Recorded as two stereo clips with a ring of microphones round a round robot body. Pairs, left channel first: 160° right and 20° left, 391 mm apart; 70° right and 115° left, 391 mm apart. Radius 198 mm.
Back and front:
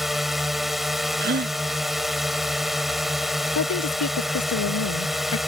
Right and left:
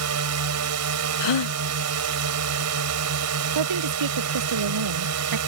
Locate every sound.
0.0 s a drone: 110° left
1.2 s a gasp: 40° right
3.5 s a woman speaking: 150° left